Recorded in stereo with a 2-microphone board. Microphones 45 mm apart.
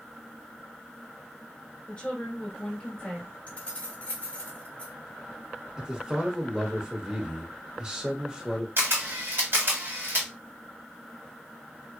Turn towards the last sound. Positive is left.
turn(degrees=-55)  # may be behind; listen again after turning